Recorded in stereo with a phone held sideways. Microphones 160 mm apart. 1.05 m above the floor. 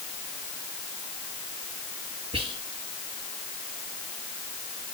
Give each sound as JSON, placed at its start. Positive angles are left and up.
{"t": 2.3, "sound": "whispering", "side_deg": -40, "distance_m": 1.8}